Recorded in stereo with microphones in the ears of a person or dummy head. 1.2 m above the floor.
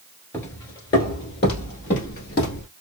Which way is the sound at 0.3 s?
15° left (ahead or behind).